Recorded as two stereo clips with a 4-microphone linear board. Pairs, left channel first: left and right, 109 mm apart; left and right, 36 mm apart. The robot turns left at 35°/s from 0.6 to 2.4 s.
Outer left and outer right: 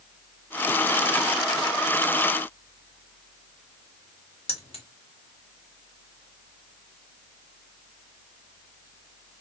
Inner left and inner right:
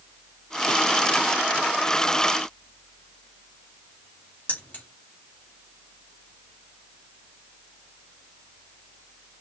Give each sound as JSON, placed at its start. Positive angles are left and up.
{"t": 4.5, "sound": "keys jangling", "side_deg": 60, "distance_m": 1.3}